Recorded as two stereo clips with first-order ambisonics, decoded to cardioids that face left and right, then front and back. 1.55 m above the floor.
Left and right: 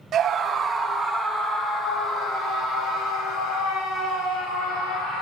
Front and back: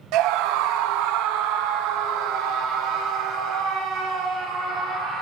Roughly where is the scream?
Behind right.